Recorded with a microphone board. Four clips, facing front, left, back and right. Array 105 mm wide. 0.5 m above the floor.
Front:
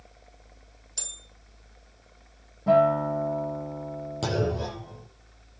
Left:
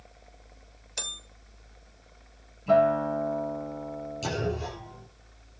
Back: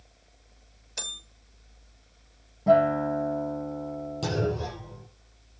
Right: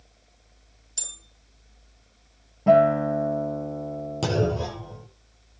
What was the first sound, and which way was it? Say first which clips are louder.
A bell: left 8 dB, back 6 dB; 130° left.